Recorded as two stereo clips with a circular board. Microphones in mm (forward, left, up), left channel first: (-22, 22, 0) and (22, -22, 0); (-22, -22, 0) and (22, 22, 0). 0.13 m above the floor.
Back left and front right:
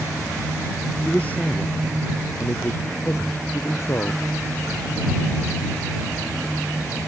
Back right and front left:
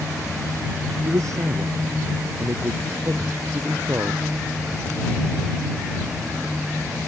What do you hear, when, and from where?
1.1 s a man speaking: 70° left; by 4.2 s 100° left